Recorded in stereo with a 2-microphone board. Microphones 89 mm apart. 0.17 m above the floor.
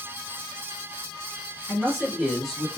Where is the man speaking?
Centre (ahead or behind), 1.7 m.